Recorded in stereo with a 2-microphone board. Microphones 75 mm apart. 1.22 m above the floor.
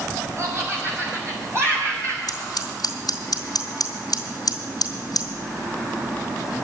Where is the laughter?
45° right (ahead or behind), 4 m; by 2.2 s 40° right (ahead or behind), 5 m.